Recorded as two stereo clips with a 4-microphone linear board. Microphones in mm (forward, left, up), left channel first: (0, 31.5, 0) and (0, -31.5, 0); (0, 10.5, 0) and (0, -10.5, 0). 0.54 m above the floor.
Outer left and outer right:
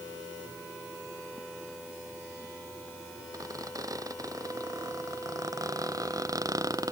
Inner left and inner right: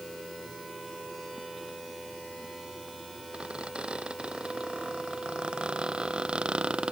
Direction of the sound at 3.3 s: 65° right (ahead or behind).